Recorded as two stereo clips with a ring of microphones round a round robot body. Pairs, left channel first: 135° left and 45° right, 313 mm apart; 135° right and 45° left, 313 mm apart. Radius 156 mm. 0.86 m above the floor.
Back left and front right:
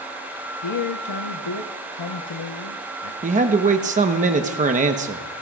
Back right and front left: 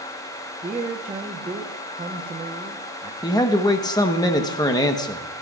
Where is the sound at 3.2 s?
75° right, 0.9 m.